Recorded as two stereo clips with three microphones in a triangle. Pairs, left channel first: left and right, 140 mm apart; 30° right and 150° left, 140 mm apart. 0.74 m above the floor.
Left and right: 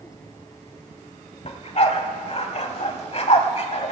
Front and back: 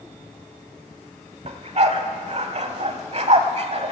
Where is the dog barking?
120° left, 1.0 m.